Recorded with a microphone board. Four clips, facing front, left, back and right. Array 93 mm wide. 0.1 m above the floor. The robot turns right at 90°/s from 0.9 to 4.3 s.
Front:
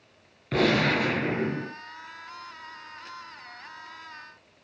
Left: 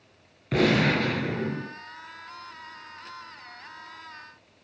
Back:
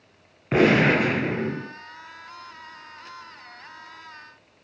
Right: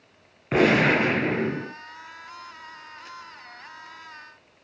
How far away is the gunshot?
About 1.1 m.